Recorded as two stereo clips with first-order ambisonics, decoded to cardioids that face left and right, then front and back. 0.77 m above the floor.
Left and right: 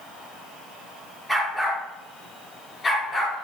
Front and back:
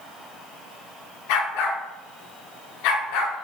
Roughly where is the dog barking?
Ahead.